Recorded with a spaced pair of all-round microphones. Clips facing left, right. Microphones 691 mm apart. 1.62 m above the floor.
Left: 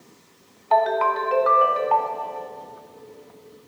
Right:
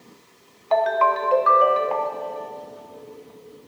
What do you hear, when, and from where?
0.7 s a ringtone: 5° right (ahead or behind), 0.6 m